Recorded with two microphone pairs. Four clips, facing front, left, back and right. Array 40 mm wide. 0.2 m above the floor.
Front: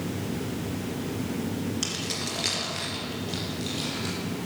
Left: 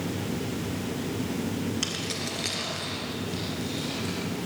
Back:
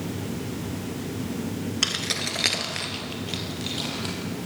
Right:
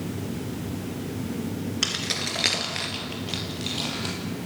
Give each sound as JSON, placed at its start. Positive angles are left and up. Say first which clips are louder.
{"t": 1.8, "sound": "keys jangling", "louder": "right 3 dB, back 4 dB", "azimuth_deg": -160, "distance_m": 2.0}